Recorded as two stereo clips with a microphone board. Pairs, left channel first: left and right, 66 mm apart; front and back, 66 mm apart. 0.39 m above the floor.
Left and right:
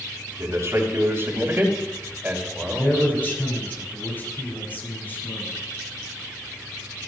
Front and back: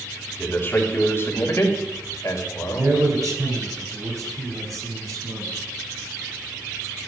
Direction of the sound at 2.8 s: 150° left.